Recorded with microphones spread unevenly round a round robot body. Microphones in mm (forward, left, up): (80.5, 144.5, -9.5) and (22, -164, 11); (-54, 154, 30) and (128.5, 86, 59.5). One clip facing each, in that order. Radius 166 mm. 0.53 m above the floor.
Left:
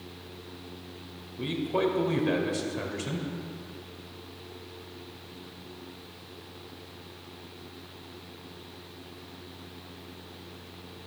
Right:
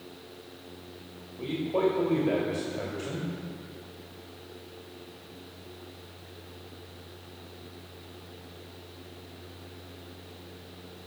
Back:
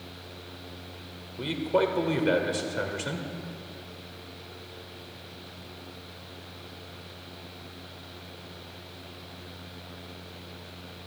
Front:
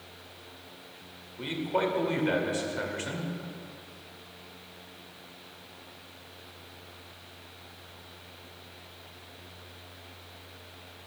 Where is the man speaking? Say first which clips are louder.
Right 1 dB, back 4 dB; 135° left, 2 m.